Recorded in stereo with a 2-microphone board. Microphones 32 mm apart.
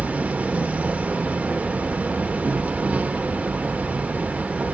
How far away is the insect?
About 1.1 m.